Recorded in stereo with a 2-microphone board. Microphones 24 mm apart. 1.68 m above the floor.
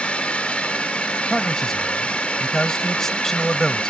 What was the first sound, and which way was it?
A drone, 60° left (ahead or behind).